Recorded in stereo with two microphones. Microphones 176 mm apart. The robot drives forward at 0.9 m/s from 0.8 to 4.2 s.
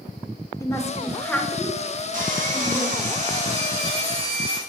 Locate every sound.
0.6 s a woman speaking: 15° left (ahead or behind), 0.8 m; by 3.1 s 5° left (ahead or behind), 3 m
2.1 s sawing: 50° right (ahead or behind), 2 m; by 4.6 s 35° right (ahead or behind), 3 m